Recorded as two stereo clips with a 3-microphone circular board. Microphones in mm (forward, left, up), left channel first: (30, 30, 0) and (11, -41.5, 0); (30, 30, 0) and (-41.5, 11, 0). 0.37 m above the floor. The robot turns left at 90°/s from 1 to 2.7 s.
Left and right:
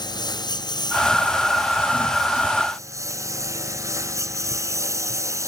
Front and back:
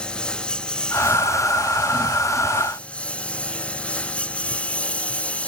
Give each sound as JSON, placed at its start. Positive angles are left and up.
{"t": 0.0, "sound": "a lawn mower", "azimuth_deg": 95}